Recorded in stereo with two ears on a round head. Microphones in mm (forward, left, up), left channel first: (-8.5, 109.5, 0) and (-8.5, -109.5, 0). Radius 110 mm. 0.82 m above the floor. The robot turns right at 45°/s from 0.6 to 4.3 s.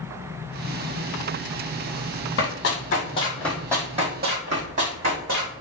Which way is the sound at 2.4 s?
45° left (ahead or behind).